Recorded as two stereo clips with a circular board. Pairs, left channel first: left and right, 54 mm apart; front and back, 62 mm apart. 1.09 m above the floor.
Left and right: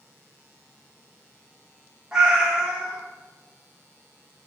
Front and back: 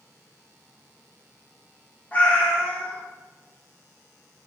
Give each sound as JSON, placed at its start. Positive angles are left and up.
{"t": 2.1, "sound": "a cat meowing", "azimuth_deg": -25, "distance_m": 0.7}